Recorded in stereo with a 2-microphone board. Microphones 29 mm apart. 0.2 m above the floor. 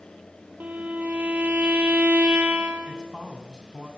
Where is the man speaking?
30° right (ahead or behind), 1.4 m.